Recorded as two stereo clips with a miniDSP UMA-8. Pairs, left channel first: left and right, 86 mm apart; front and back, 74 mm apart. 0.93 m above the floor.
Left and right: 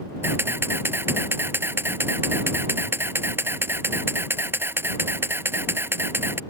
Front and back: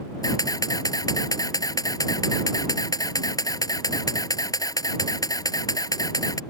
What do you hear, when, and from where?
0.2 s a camera shutter: 25° right